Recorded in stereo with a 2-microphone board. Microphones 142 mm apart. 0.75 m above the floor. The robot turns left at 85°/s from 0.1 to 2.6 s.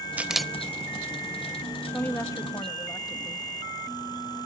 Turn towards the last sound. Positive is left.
turn(degrees=25)  # may be behind; listen again after turning